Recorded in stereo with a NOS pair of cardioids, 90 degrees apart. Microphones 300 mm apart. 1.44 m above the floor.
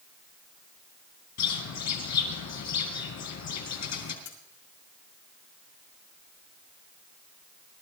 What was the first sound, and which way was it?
A bird, 60° left.